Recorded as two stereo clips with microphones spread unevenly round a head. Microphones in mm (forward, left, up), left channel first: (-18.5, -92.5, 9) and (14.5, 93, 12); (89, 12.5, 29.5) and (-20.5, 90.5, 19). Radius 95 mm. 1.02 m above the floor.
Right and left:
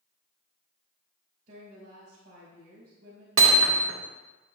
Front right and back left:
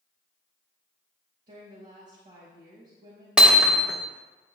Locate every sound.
1.5 s a woman speaking: 125° left, 4 m
3.4 s hammering: 60° left, 1.7 m